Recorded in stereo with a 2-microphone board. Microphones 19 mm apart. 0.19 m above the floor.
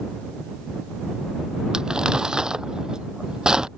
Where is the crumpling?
40° right (ahead or behind).